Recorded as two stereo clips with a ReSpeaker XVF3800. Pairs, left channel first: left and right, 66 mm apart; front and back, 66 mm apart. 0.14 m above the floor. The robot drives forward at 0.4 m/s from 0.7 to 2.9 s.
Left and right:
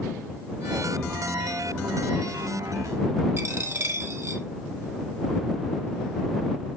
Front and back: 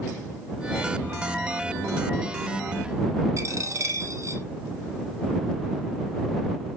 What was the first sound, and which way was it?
A dropped coin, 145° right.